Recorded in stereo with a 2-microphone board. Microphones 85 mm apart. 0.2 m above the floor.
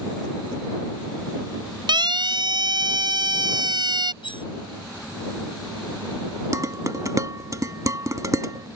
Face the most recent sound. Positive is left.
turn(degrees=-40)  # may be behind; listen again after turning